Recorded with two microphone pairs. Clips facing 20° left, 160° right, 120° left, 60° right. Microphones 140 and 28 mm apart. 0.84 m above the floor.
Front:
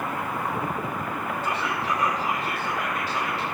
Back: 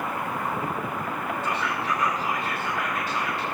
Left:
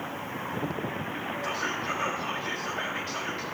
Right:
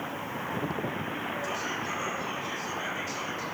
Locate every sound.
1.4 s whispering: 95° left, 1.1 m